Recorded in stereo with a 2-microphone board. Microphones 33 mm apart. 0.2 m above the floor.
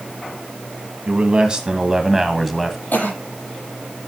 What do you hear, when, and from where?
1.1 s a man speaking: 35° right (ahead or behind), 1.8 m; by 2.8 s 10° left (ahead or behind), 1.6 m
2.9 s a cough: 70° left (ahead or behind), 7.5 m